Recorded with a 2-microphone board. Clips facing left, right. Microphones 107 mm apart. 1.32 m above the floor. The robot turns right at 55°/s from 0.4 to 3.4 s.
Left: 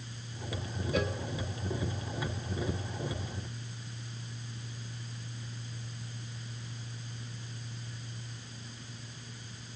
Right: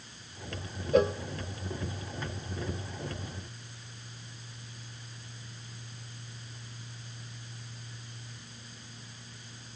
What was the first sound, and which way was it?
A cowbell, 35° right (ahead or behind).